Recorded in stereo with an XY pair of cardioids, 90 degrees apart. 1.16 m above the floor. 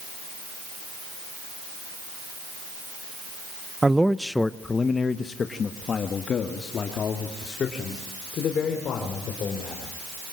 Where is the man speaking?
20° right, 0.7 m; by 9.9 s 70° left, 4.5 m.